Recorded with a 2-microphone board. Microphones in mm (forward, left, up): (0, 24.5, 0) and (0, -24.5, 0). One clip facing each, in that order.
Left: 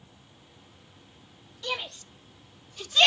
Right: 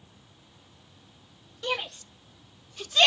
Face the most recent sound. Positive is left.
turn(degrees=0)  # may be behind; listen again after turning